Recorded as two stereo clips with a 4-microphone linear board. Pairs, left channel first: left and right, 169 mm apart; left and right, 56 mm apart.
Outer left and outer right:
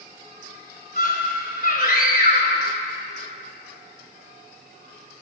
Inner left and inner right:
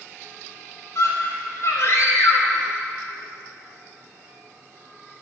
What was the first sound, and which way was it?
A scream, 65° left (ahead or behind).